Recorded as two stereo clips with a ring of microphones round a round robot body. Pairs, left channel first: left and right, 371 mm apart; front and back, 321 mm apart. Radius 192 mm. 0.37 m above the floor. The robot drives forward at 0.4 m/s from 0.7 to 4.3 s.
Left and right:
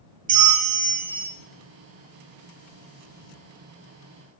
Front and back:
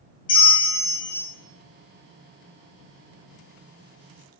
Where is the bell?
40° right, 0.7 m; by 1.3 s 85° right, 0.6 m.